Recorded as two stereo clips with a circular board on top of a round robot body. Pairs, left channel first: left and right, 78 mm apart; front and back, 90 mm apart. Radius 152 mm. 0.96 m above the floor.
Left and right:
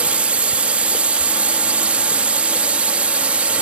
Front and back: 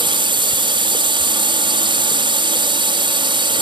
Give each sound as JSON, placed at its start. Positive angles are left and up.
{"t": 0.0, "sound": "a drone", "azimuth_deg": -165}